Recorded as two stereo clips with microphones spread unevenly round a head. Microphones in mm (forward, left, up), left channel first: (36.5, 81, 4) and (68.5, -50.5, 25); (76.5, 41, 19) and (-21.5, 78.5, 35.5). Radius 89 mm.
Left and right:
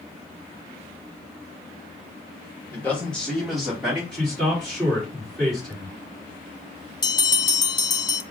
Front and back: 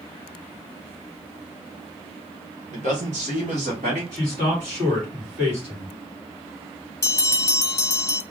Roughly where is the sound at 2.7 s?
Behind.